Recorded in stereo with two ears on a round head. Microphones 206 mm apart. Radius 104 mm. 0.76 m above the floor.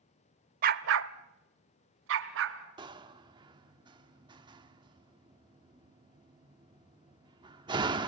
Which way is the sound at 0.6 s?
35° right (ahead or behind).